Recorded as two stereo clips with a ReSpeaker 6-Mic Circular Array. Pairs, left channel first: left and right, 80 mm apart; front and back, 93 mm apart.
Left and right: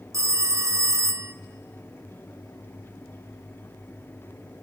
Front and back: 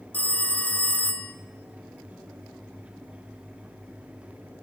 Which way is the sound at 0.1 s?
65° right.